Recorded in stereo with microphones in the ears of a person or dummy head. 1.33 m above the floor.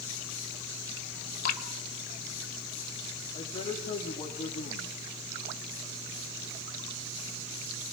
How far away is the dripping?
About 2.0 m.